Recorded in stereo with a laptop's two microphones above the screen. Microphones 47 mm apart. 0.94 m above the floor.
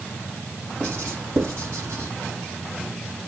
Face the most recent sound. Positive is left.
turn(degrees=-85)